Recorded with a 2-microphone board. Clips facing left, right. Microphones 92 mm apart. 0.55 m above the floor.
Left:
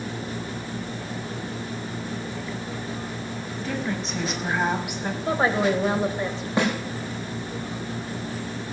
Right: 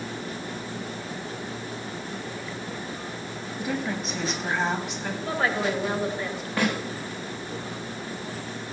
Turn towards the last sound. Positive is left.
turn(degrees=20)  # may be behind; listen again after turning